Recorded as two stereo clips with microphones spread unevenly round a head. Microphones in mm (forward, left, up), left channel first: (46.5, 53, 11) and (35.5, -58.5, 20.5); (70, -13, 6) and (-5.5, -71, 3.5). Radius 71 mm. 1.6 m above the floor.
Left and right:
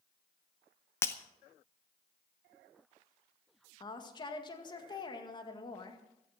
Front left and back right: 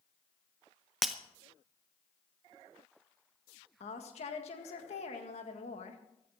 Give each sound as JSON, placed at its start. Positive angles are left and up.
{"t": 1.0, "sound": "breaking glass", "azimuth_deg": 130, "distance_m": 0.7}
{"t": 3.8, "sound": "a woman speaking", "azimuth_deg": 35, "distance_m": 2.0}